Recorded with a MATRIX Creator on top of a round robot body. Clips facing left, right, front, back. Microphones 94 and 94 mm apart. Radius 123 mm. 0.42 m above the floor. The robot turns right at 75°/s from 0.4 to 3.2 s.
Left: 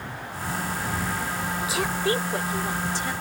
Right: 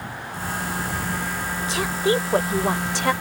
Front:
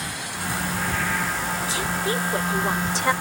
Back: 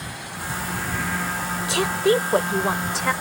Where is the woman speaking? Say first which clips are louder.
Right 5 dB, back 10 dB; 170° left; by 3.1 s 80° right.